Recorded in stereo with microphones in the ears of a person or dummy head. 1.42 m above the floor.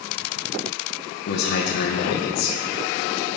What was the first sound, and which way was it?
A man speaking, 55° left (ahead or behind).